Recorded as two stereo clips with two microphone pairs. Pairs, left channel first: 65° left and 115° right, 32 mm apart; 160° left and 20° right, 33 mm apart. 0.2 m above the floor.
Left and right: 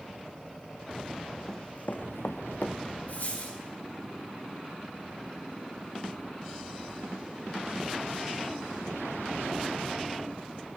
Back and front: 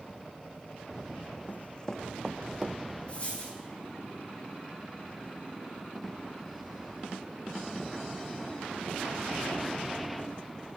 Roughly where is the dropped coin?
Left.